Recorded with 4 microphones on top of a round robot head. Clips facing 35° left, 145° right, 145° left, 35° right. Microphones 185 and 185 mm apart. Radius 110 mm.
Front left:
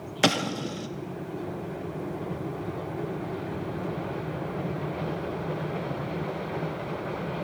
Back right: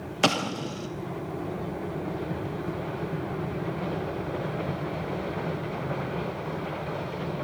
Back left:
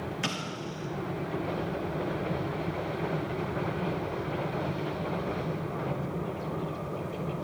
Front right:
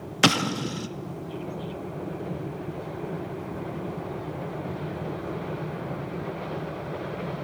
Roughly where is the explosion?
Ahead right.